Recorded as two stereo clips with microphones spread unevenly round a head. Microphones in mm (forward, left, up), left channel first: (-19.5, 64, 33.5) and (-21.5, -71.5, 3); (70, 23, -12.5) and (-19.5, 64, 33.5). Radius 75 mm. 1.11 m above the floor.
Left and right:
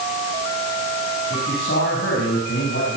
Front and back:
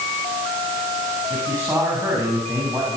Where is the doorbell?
No doorbell in this recording.